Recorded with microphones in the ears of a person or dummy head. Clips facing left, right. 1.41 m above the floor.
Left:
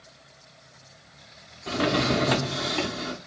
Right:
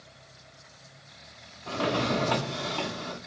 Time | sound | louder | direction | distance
1.7 | a drawer | left 4 dB | 25° left (ahead or behind) | 0.5 m